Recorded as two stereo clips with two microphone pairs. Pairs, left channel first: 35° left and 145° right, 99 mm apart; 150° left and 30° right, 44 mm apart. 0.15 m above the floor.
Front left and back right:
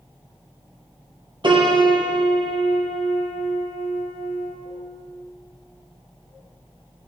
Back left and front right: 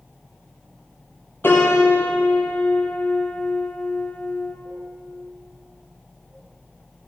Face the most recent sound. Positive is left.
turn(degrees=180)